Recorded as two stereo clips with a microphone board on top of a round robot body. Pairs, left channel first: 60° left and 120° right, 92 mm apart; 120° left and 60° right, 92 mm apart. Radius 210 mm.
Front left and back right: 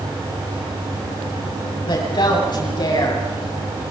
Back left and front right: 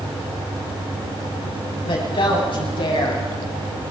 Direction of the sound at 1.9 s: 95° left.